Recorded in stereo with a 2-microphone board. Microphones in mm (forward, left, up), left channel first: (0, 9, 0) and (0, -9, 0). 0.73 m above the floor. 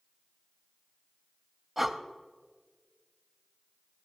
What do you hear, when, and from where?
1.8 s breathing: 10° right (ahead or behind), 0.5 m